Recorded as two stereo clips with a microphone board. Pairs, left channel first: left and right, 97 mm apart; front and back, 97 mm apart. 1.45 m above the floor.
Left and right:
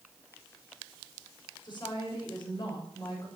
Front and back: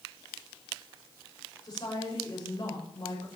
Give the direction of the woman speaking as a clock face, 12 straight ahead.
10 o'clock.